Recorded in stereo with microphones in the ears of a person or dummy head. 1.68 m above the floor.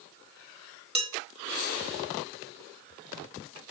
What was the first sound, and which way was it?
Dishes clattering, 35° right (ahead or behind).